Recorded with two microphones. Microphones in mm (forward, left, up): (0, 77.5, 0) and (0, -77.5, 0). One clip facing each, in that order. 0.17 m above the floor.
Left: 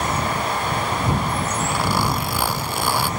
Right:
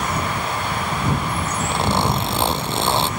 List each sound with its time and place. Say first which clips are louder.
1.7 s a zipper: right 4 dB; 25° right (ahead or behind)